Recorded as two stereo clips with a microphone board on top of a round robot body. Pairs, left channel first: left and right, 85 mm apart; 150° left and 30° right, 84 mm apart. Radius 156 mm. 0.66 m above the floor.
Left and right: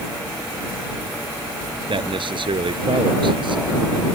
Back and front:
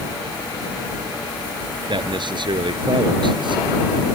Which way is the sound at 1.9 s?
60° right.